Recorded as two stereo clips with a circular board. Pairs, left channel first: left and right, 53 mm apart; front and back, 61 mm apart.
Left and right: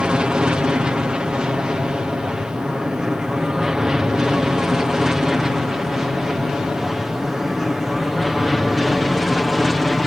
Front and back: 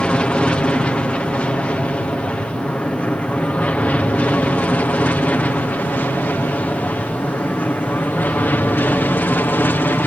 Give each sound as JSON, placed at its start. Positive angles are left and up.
{"t": 0.0, "sound": "an aircraft", "azimuth_deg": -40}